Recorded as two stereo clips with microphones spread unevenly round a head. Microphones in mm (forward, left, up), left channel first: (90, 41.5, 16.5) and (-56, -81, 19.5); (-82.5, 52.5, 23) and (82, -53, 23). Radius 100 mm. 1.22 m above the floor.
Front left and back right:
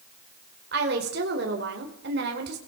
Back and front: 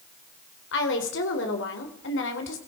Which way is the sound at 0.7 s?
Straight behind.